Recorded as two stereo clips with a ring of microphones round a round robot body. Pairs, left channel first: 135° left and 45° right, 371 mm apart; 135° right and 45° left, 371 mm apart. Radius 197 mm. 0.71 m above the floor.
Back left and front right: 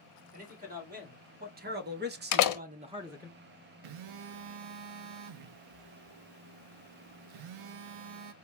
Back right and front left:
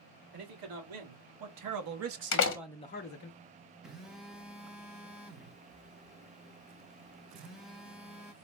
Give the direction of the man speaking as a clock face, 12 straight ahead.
11 o'clock.